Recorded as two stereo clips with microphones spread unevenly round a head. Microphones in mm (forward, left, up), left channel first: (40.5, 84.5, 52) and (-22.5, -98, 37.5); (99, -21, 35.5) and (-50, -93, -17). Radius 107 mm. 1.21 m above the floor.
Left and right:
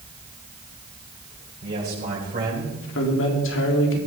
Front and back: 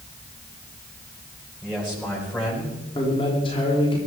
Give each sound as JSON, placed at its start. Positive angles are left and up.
{"t": 1.6, "sound": "a man speaking", "azimuth_deg": -60, "distance_m": 5.0}
{"t": 3.0, "sound": "a man speaking", "azimuth_deg": 95, "distance_m": 3.5}